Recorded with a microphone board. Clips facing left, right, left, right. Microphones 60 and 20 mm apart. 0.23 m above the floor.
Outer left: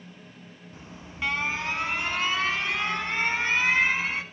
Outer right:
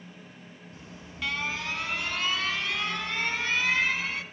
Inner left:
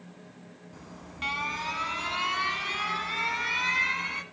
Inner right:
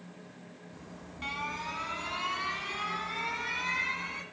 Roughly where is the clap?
I don't hear a clap.